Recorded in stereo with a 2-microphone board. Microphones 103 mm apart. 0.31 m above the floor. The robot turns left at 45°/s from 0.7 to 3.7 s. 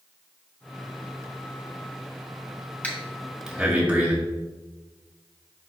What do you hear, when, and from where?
2.8 s breathing: 15° left (ahead or behind), 1.5 m; by 4.1 s 15° right (ahead or behind), 1.5 m